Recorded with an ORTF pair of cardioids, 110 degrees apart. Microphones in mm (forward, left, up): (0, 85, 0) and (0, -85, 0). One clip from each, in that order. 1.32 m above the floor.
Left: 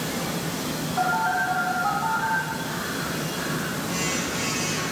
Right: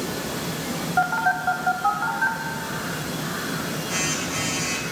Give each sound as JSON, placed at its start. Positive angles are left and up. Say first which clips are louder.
{"t": 1.0, "sound": "a phone buzzing", "louder": "right 1 dB", "azimuth_deg": -50, "distance_m": 2.5}